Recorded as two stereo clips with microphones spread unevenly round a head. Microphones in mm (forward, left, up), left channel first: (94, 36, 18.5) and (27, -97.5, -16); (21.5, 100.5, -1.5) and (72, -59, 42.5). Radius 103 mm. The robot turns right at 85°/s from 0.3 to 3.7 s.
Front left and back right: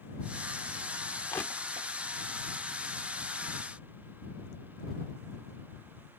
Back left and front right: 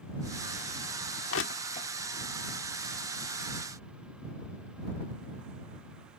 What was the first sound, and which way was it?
Crushing, 130° left.